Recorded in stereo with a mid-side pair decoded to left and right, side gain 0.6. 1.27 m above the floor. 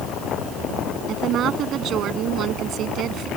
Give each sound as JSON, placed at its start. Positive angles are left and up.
{"t": 1.1, "sound": "a woman speaking", "azimuth_deg": -55}